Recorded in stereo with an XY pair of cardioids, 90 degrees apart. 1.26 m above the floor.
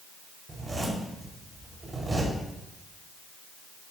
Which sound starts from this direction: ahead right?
A zipper, at 0.5 s.